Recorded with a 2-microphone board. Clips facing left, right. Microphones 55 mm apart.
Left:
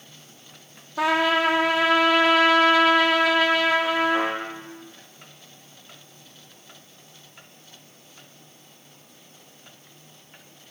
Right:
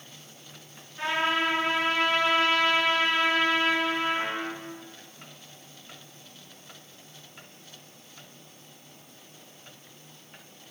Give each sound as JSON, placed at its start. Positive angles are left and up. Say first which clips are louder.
{"t": 1.0, "sound": "a trumpet", "louder": "left 6 dB", "side_deg": 80, "distance_m": 0.6}